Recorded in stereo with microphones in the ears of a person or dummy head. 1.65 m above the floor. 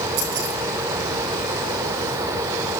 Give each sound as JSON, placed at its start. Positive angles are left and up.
{"t": 0.2, "sound": "keys jangling", "side_deg": -85, "distance_m": 9.0}